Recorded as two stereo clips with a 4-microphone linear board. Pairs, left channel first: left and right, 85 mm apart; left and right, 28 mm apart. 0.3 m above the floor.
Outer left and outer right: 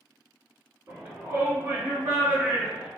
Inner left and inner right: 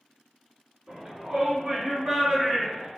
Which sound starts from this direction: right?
A shout, at 0.9 s.